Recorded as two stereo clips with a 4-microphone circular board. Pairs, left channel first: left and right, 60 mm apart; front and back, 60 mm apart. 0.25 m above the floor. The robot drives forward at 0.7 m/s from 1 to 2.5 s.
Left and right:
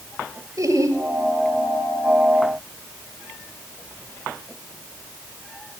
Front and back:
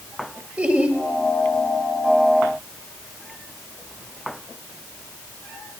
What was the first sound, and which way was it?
Laughter, 120° right.